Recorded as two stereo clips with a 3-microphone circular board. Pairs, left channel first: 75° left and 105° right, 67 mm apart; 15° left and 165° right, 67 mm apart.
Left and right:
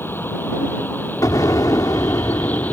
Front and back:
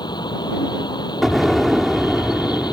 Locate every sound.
0.0 s a vehicle: 15° left; by 2.7 s 5° left
1.2 s an explosion: 105° left